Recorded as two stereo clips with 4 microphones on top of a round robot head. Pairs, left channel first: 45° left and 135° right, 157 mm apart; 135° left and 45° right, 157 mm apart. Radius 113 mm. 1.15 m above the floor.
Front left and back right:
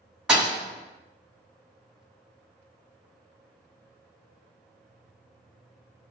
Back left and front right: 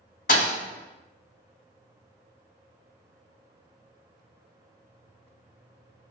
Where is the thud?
145° left, 0.5 m.